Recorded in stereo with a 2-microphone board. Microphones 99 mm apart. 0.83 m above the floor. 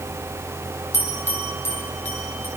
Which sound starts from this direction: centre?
A bell, at 0.9 s.